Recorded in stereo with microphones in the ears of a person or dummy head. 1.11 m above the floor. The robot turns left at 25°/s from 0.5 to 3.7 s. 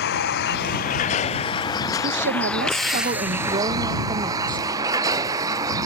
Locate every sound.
0.0 s a vehicle: 50° left (ahead or behind); by 5.9 s 25° right (ahead or behind)
2.0 s a woman speaking: 120° right; by 4.8 s 160° right